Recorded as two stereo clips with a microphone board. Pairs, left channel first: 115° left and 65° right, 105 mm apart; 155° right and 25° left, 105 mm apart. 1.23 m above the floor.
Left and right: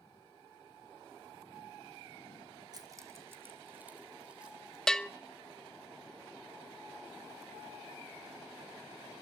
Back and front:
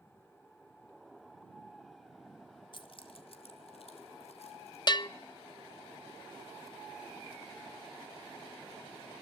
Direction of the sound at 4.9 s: 165° right.